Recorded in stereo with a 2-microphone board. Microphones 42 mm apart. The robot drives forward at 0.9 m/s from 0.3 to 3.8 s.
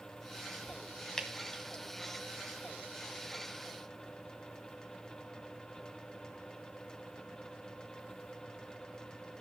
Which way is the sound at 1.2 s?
15° left (ahead or behind).